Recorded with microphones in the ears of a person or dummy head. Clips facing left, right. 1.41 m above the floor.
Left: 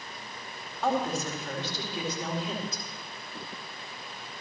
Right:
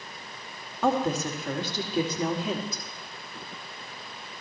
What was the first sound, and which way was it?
A woman speaking, 50° right (ahead or behind).